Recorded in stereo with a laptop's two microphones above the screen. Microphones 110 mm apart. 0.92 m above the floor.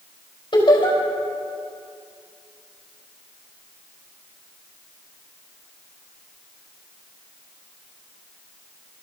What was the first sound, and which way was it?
Laughter, 45° left (ahead or behind).